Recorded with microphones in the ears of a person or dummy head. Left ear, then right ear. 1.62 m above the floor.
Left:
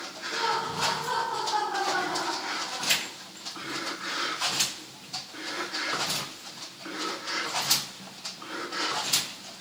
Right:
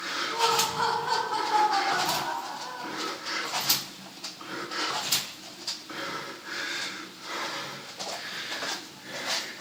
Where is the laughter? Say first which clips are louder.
Right 2 dB; 35° right (ahead or behind), 2 m; by 3.0 s 30° right (ahead or behind), 4 m.